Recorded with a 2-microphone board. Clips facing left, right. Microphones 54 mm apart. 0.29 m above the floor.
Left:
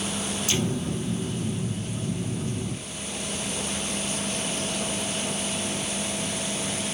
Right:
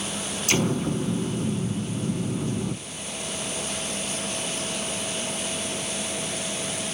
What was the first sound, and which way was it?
An explosion, 70° right (ahead or behind).